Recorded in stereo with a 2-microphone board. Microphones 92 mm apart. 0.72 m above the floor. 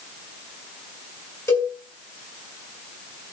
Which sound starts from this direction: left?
A cowbell, at 1.5 s.